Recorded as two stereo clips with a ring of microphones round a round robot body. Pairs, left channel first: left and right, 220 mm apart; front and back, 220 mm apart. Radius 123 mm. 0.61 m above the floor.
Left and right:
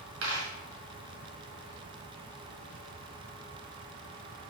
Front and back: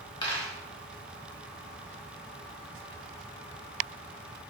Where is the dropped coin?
70° right, 1.7 m.